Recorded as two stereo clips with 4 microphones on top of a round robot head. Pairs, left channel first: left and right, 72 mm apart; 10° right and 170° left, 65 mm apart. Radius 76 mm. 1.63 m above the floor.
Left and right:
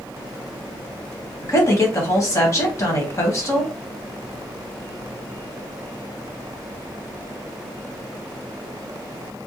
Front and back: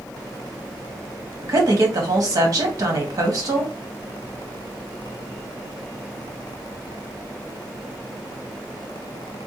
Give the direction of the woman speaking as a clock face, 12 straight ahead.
7 o'clock.